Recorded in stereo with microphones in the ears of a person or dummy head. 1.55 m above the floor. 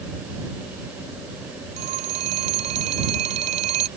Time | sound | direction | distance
1.8 | a phone ringing | 40° right (ahead or behind) | ?